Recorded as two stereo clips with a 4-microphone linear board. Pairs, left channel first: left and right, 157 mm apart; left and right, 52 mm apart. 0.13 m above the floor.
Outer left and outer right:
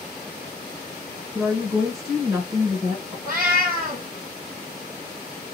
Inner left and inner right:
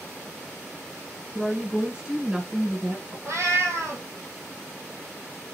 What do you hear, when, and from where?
1.4 s a woman speaking: 20° right (ahead or behind), 1.3 m
3.2 s a cat meowing: 60° right (ahead or behind), 1.8 m